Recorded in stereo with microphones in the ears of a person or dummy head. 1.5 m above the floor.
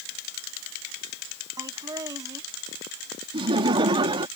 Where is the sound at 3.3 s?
25° right (ahead or behind).